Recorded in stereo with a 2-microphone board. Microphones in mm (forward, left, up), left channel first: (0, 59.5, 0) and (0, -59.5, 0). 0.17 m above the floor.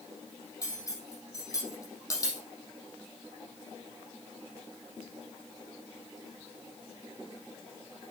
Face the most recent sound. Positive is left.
turn(degrees=30)  # may be behind; listen again after turning